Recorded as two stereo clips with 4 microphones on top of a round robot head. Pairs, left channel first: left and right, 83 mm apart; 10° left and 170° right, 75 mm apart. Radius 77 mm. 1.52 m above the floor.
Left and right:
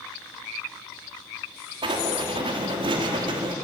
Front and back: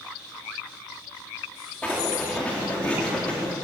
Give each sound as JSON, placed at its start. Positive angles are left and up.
{"t": 1.8, "sound": "writing", "azimuth_deg": -70, "distance_m": 4.5}